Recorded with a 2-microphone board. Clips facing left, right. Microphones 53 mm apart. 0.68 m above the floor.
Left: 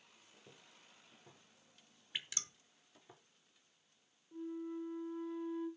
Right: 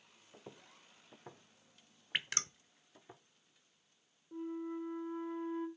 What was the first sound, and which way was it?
Footsteps, 70° right (ahead or behind).